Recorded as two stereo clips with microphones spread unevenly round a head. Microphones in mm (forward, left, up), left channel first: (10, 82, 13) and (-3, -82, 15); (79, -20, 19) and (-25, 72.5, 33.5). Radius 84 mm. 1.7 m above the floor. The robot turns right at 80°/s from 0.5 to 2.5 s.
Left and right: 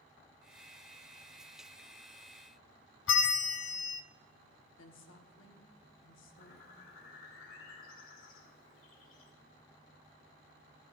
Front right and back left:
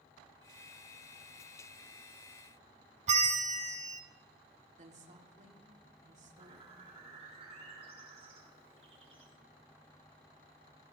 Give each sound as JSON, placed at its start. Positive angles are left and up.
{"t": 3.1, "sound": "a bell", "azimuth_deg": 100, "distance_m": 0.7}
{"t": 4.8, "sound": "a woman speaking", "azimuth_deg": 100, "distance_m": 1.4}
{"t": 6.4, "sound": "a bird", "azimuth_deg": 95, "distance_m": 3.0}